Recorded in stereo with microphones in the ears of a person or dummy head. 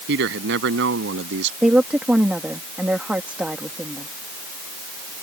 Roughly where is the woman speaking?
Centre.